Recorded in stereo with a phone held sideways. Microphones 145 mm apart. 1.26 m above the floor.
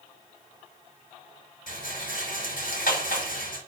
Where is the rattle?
85° left, 5.5 m.